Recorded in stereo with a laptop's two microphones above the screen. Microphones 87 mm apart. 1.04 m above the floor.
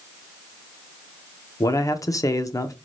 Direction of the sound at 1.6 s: 40° left (ahead or behind).